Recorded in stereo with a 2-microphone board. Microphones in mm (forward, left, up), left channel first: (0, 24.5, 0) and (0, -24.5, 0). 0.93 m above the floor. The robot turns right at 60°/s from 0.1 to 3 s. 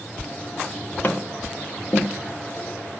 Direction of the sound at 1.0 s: 35° left (ahead or behind).